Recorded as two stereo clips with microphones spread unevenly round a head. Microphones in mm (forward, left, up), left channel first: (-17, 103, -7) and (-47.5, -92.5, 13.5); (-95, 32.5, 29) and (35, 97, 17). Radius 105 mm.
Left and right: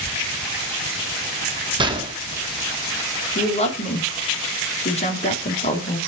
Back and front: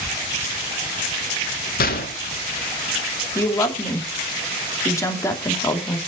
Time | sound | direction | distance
1.8 | a gunshot | 165° right | 2.0 m
3.4 | a woman speaking | 135° left | 2.5 m